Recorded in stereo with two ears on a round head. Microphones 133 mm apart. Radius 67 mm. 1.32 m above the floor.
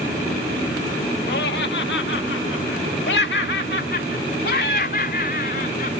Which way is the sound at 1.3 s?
75° left (ahead or behind).